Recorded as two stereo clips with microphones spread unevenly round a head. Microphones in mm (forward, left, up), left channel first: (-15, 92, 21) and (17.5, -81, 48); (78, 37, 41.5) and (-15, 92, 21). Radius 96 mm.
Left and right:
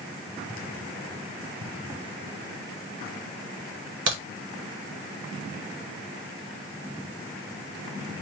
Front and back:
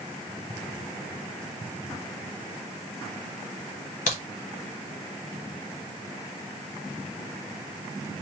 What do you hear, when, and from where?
4.1 s a crack: 60° right, 1.3 m